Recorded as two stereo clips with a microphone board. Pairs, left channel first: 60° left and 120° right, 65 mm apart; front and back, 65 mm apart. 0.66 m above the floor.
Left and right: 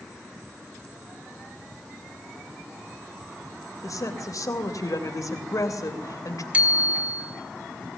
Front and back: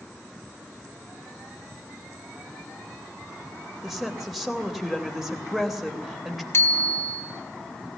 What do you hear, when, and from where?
3.8 s a woman speaking: 95° left, 3 m
6.5 s a bicycle bell: 50° right, 2.5 m